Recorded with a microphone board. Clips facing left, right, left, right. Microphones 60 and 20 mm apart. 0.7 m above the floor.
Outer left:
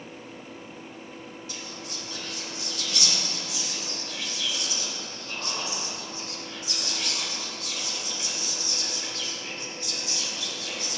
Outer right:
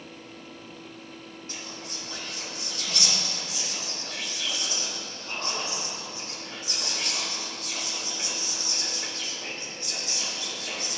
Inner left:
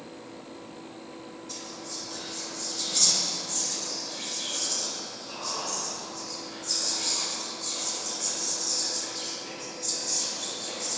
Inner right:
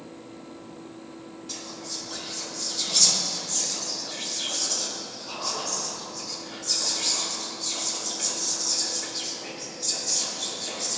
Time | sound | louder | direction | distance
1.5 | whispering | outer left 1 dB, inner right 3 dB | 35° right (ahead or behind) | 1.9 m